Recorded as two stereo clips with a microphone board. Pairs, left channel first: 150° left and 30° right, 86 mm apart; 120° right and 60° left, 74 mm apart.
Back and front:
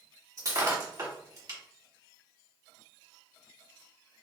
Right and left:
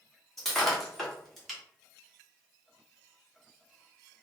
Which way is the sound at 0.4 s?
35° right.